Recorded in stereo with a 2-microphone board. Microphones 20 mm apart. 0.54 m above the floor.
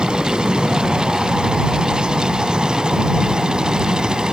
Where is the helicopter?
55° right (ahead or behind); by 4.3 s 45° right (ahead or behind).